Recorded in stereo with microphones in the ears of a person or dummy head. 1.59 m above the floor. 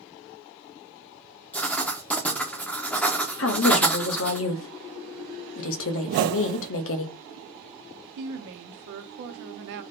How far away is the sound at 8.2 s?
About 0.9 m.